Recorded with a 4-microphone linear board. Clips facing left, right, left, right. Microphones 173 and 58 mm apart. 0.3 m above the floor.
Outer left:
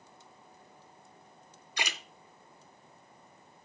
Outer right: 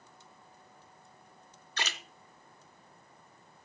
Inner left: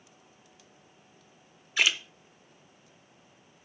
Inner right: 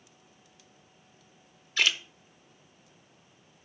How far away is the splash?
About 0.8 m.